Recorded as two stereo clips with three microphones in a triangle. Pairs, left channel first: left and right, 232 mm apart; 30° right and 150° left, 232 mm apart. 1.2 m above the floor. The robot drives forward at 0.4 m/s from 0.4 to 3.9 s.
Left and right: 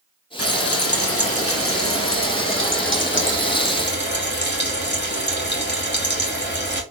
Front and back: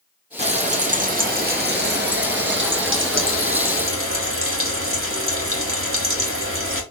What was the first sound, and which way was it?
Frying, 90° left.